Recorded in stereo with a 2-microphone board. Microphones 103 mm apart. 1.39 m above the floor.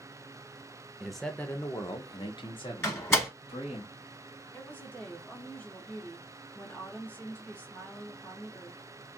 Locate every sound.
1.0 s a man speaking: 5° right (ahead or behind), 0.7 m; by 3.8 s 75° left (ahead or behind), 1.5 m
2.8 s a door slam: 20° left (ahead or behind), 1.5 m
4.5 s a woman speaking: 15° left (ahead or behind), 0.8 m